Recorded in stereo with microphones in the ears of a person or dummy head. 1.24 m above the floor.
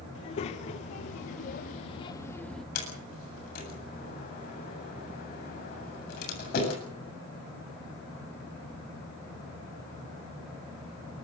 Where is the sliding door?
60° left (ahead or behind), 8 m.